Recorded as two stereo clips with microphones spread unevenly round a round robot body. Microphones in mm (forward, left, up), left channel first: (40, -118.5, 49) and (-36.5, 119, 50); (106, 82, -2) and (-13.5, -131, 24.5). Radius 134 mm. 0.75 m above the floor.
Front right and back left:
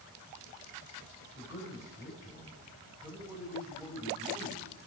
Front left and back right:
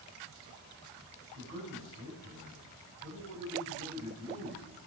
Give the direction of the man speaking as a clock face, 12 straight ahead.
6 o'clock.